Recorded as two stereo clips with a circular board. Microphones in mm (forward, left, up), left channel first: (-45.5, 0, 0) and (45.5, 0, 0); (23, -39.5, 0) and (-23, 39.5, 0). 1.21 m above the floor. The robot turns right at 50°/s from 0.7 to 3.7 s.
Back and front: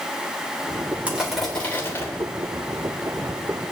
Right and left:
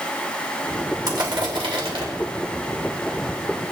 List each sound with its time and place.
1.1 s crushing: 75° left, 3 m; by 2.1 s 125° left, 3 m